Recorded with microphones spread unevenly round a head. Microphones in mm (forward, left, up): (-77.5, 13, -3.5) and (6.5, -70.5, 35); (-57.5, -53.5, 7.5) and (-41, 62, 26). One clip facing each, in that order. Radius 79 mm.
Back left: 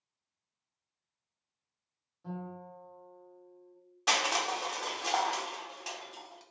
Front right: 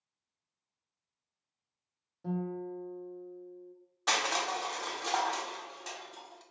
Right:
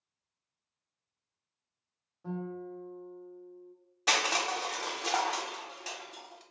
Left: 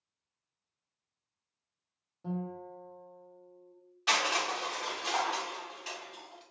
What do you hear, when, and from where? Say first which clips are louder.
2.2 s a guitar: front right 7 dB, even; 10° left, 0.6 m
4.1 s crushing: back left 1 dB, even; 145° right, 0.8 m